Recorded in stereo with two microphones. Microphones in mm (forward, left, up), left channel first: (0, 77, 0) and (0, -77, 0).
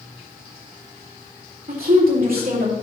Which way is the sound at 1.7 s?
75° right (ahead or behind).